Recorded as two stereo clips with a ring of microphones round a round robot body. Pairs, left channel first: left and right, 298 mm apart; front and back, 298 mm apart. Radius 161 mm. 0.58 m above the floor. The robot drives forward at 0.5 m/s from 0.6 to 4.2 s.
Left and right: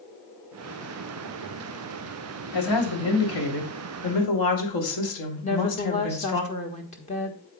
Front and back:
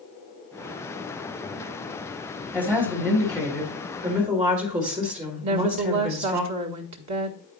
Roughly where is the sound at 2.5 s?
Left.